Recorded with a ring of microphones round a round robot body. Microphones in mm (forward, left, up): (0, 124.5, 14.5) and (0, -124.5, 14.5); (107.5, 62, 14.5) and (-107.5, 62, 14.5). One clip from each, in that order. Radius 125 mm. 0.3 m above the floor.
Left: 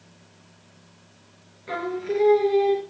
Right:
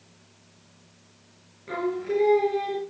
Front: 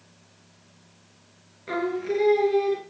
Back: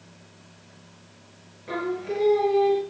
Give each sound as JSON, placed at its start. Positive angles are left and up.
{"t": 1.7, "sound": "singing", "azimuth_deg": 20, "distance_m": 3.5}